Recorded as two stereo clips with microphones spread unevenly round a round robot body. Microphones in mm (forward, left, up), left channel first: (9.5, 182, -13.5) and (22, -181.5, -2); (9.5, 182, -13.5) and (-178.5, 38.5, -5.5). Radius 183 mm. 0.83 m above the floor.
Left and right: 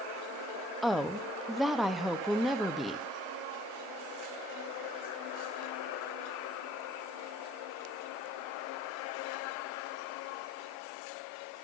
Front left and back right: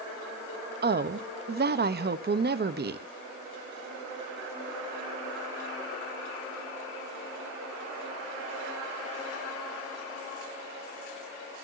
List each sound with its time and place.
0.8 s a woman speaking: straight behind, 1.0 m